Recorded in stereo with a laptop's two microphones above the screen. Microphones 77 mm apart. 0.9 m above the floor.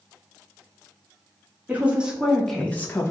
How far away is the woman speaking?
About 1.0 m.